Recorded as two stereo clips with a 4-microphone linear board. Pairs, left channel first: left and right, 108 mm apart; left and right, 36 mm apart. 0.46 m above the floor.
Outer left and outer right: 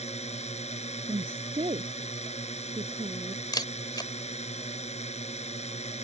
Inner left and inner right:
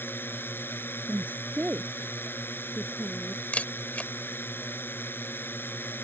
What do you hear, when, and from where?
0.0 s a drone: 75° left (ahead or behind)
1.1 s a woman speaking: 55° right (ahead or behind)
3.5 s a camera shutter: 40° left (ahead or behind)